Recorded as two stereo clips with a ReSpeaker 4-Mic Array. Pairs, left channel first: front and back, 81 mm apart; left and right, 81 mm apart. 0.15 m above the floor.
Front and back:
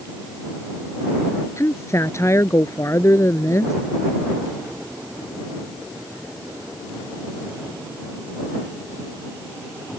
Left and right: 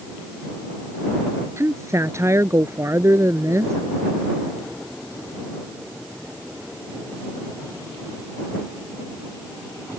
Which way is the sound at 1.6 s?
45° right.